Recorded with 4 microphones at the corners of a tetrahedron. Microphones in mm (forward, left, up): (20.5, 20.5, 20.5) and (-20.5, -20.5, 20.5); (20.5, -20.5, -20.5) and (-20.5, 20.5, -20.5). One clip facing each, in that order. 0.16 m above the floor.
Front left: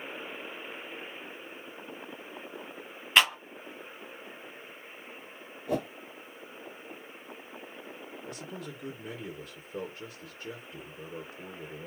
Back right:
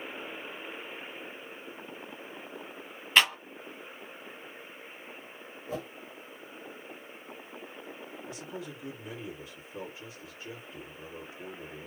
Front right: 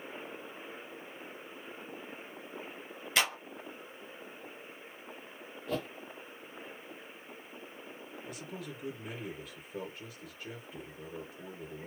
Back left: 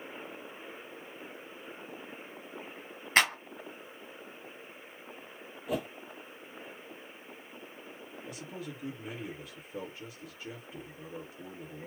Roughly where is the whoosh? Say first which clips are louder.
Front left 6 dB, back left 2 dB; ahead left.